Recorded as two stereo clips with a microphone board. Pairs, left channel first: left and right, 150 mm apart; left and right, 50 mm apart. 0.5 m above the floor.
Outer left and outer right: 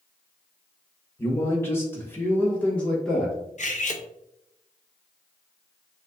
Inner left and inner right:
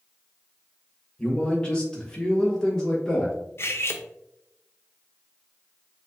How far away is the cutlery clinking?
About 0.5 m.